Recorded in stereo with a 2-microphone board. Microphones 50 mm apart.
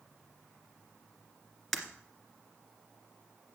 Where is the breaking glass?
5° left (ahead or behind), 1.9 m.